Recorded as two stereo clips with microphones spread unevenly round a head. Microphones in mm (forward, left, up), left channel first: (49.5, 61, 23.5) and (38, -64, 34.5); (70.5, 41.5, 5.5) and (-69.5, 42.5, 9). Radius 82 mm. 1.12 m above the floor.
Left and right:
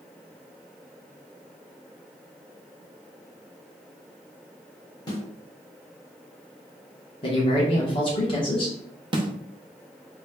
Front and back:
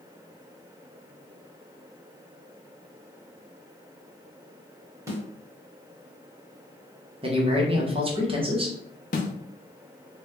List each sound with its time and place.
5.1 s a snare drum: 135° left, 1.0 m
7.2 s a man speaking: 130° left, 1.1 m
9.1 s a snare drum: 40° right, 0.6 m